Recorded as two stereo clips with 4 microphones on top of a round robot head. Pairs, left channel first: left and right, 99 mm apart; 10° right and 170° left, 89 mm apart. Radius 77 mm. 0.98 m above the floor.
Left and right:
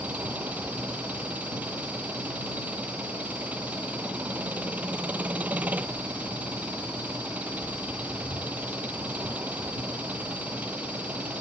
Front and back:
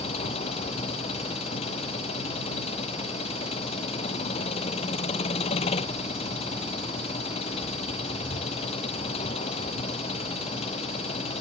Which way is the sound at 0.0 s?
10° right.